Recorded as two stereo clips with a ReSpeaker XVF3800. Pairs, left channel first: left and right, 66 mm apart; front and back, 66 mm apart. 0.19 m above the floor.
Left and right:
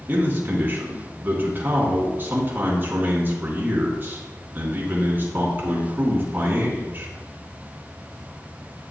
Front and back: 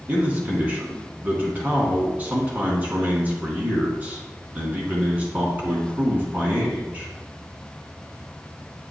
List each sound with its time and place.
0.1 s a man speaking: 130° right, 2 m